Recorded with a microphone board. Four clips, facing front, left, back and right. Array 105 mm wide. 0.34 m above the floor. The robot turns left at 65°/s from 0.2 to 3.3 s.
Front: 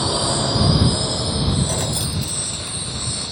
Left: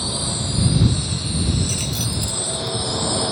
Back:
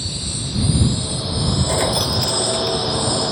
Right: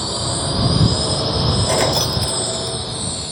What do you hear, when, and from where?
0.0 s a drone: 15° right; by 3.3 s 145° left
1.7 s keys jangling: 105° right; by 2.8 s straight behind